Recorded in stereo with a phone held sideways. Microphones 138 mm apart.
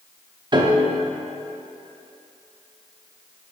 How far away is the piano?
About 0.6 m.